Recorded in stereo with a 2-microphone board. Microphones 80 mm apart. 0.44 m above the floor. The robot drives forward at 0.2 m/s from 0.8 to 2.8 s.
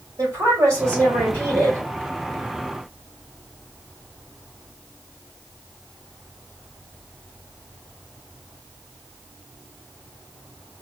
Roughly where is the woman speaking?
Right.